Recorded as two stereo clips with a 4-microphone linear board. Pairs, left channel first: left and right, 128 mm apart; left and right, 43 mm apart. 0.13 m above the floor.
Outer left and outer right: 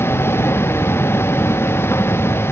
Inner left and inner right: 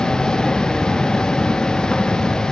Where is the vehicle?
20° left (ahead or behind).